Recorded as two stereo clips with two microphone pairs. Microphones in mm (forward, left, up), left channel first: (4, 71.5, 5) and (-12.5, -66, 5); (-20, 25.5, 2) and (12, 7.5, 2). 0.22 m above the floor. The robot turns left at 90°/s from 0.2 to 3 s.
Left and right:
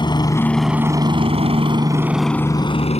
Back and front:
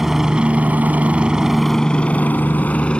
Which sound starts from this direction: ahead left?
A helicopter, at 0.0 s.